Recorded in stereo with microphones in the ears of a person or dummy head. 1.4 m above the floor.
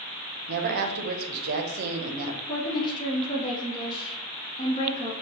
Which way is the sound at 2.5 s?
25° left (ahead or behind).